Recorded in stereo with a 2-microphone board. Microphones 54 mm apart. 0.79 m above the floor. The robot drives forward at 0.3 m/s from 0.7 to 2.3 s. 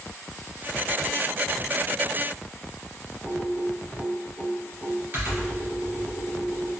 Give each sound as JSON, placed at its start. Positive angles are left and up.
{"t": 3.2, "sound": "typing on a keyboard", "side_deg": -45, "distance_m": 1.9}